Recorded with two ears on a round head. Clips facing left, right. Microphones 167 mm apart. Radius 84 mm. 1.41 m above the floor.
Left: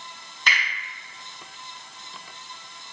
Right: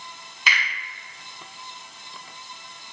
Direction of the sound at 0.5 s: 5° right (ahead or behind).